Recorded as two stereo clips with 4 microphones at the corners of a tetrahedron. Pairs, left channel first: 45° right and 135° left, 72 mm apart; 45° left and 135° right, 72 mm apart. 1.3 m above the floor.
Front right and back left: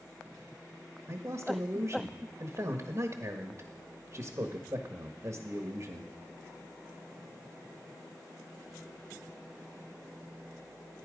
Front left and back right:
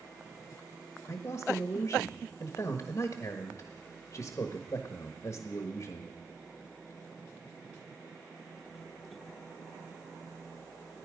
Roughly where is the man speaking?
Left.